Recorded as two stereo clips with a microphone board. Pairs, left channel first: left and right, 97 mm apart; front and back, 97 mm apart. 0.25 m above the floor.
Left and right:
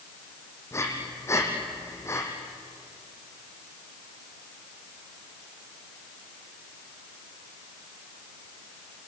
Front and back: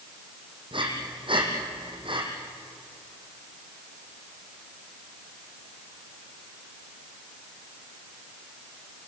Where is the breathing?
150° left, 4 m.